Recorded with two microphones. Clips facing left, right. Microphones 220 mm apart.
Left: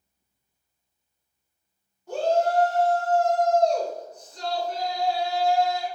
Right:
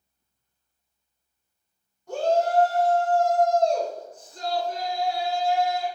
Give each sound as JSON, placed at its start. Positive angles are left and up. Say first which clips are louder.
{"t": 2.1, "sound": "a shout", "louder": "even", "side_deg": 5, "distance_m": 1.1}